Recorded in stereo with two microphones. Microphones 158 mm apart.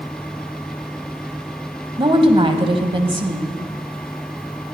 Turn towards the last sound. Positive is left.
turn(degrees=-35)  # may be behind; listen again after turning